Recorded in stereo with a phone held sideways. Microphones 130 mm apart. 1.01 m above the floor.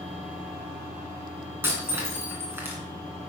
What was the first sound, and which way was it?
Breaking glass, 15° right (ahead or behind).